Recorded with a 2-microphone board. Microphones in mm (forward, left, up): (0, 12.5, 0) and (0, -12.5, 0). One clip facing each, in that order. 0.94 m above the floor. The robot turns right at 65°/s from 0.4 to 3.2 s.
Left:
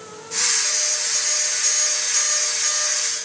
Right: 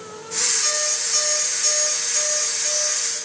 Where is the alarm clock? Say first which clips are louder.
Even; 70° right (ahead or behind), 5 m; by 3.2 s 85° left, 5 m.